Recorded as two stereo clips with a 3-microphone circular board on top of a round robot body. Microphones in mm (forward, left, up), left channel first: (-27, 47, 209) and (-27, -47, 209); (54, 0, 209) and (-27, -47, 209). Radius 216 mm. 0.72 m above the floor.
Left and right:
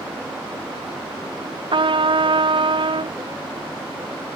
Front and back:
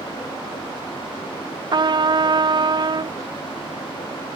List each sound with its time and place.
1.7 s a trumpet: 115° right